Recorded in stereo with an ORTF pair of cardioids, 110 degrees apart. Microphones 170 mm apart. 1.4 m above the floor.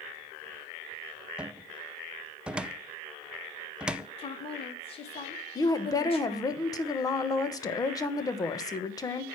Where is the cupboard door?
5° right, 0.6 m.